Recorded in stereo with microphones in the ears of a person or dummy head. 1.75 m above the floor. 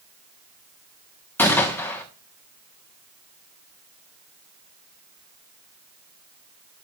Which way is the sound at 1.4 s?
10° left (ahead or behind).